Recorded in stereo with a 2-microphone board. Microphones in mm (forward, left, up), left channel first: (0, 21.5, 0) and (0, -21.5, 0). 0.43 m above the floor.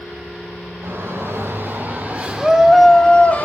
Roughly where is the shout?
Right.